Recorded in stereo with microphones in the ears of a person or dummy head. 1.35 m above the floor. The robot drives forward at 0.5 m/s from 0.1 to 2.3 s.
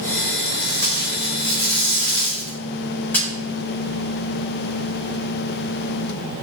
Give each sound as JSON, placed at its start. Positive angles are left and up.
{"t": 0.6, "sound": "tape being pulled", "side_deg": 15, "distance_m": 3.0}